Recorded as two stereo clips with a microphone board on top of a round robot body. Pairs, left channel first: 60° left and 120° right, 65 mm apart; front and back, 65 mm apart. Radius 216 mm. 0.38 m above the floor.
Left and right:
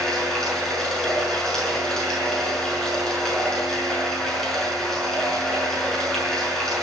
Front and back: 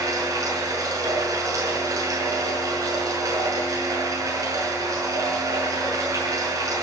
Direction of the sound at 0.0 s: 145° left.